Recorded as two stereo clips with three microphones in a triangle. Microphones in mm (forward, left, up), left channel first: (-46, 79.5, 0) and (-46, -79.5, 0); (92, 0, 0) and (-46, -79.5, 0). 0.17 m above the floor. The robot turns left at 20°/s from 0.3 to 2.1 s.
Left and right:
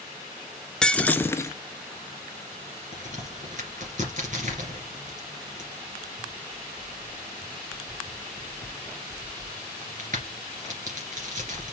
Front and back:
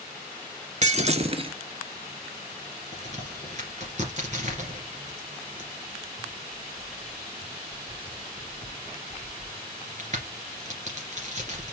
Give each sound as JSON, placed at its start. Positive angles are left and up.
{"t": 0.8, "sound": "breaking glass", "azimuth_deg": 175, "distance_m": 0.6}
{"t": 2.9, "sound": "a crack", "azimuth_deg": -115, "distance_m": 2.5}